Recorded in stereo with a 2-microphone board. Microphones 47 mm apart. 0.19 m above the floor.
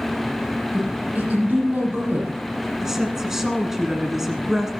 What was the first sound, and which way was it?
A woman speaking, 35° right (ahead or behind).